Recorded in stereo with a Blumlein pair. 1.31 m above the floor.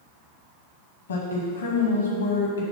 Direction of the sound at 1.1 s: 70° left.